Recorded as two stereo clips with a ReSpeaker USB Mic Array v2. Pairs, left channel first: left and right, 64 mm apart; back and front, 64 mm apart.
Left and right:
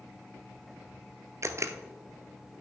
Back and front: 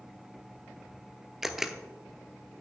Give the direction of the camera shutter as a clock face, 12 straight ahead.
3 o'clock.